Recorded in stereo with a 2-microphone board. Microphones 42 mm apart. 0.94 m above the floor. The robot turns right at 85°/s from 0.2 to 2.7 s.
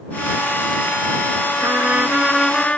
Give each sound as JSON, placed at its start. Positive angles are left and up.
{"t": 1.6, "sound": "a trumpet", "azimuth_deg": -65}